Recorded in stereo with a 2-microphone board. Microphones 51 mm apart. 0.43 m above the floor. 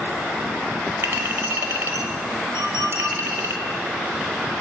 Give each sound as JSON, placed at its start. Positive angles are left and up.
{"t": 1.0, "sound": "a clink", "side_deg": -60, "distance_m": 1.1}
{"t": 2.5, "sound": "a clink", "side_deg": 60, "distance_m": 4.5}